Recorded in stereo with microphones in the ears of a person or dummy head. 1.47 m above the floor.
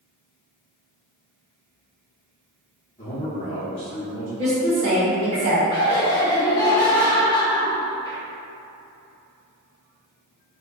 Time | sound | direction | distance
3.0 | a man speaking | 15° left (ahead or behind) | 1.2 m
4.4 | a woman speaking | 35° right (ahead or behind) | 1.0 m
5.7 | laughter | 20° left (ahead or behind) | 0.9 m